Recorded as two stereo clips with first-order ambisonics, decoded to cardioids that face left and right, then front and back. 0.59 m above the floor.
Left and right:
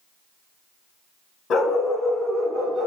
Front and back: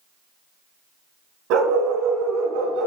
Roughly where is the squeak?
No squeak in this recording.